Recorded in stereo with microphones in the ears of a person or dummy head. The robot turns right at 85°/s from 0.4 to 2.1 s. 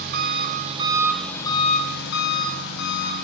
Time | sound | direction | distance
0.0 | an engine running | 65° right | 1.2 m